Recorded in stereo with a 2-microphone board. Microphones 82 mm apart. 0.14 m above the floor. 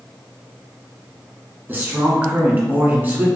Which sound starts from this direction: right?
A man speaking, at 1.7 s.